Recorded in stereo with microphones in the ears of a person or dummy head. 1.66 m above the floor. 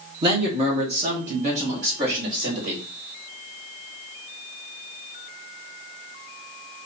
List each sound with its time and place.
0.2 s a man speaking: 30° right (ahead or behind), 1.0 m; by 2.8 s 45° right (ahead or behind), 2 m